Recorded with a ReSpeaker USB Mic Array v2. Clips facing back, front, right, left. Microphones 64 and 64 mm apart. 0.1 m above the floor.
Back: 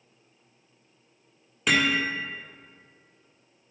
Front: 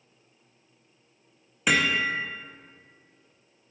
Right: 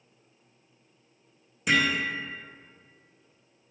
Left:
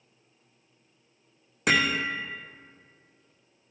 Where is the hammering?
85° left, 1.6 m.